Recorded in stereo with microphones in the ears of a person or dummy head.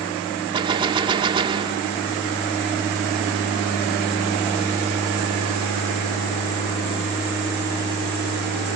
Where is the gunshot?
25° right (ahead or behind).